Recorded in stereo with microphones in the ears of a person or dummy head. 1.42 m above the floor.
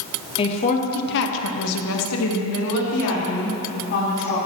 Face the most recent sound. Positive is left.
turn(degrees=50)  # may be behind; listen again after turning